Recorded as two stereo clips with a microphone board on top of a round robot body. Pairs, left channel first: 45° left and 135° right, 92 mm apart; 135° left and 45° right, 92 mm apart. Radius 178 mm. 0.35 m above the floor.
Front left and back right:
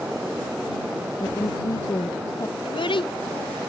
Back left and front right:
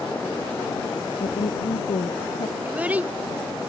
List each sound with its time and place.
1.2 s a woman speaking: 100° left
2.6 s a child speaking: 30° left